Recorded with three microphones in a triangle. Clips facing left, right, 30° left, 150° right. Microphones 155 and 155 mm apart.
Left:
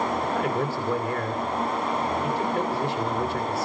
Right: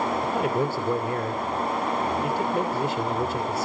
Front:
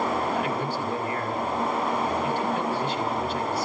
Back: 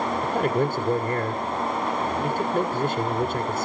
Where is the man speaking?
155° right, 1.7 m.